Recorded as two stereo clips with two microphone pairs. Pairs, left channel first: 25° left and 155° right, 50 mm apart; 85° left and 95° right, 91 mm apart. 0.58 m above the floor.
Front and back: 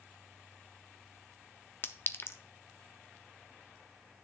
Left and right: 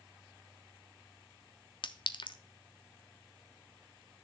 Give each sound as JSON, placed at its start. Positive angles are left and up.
{"t": 1.8, "sound": "a clink", "azimuth_deg": 60, "distance_m": 0.5}